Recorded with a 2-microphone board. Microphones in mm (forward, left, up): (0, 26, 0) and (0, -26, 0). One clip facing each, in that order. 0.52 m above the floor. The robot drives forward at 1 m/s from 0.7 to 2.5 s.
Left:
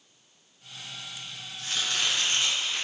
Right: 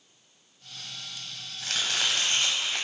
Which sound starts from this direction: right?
Chopping, at 1.6 s.